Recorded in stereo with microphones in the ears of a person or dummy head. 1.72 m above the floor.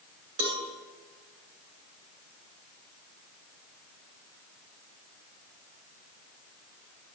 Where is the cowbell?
65° right (ahead or behind), 7.5 m.